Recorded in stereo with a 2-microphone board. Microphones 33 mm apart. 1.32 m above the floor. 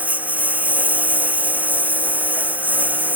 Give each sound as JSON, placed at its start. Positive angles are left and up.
{"t": 0.0, "sound": "a lawn mower", "side_deg": -55}